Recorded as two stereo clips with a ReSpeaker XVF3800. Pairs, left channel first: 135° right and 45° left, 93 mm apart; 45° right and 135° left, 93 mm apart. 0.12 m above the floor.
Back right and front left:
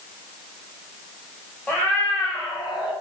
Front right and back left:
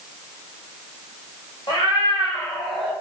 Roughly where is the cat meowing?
Ahead right.